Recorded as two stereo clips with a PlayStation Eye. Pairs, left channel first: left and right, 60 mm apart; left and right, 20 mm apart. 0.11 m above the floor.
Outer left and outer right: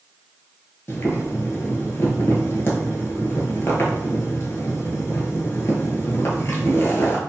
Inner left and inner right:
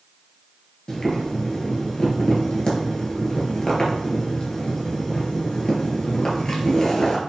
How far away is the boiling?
About 0.8 m.